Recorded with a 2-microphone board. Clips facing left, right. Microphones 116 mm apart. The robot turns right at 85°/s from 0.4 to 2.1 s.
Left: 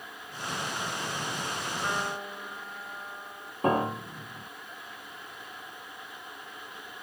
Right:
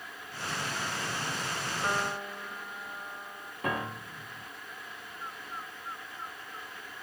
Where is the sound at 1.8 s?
20° right (ahead or behind); by 3.5 s 5° left (ahead or behind).